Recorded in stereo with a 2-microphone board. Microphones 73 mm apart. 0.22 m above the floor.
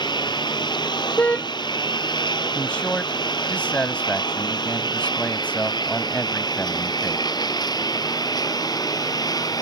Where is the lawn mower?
85° left; by 9.6 s 60° left (ahead or behind).